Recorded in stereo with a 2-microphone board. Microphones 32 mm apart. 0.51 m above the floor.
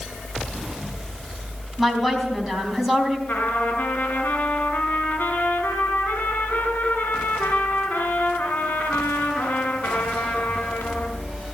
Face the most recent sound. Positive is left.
turn(degrees=75)  # may be behind; listen again after turning